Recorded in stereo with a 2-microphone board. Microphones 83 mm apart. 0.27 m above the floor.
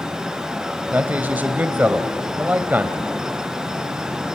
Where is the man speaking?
20° right (ahead or behind), 1.2 m.